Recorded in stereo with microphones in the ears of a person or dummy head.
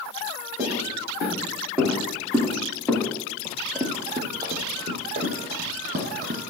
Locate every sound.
0.6 s footsteps: 20° right (ahead or behind), 6 m; by 3.1 s 10° left (ahead or behind), 3.5 m
3.5 s running footsteps: 10° left (ahead or behind), 1.8 m; by 6.4 s 50° right (ahead or behind), 3.5 m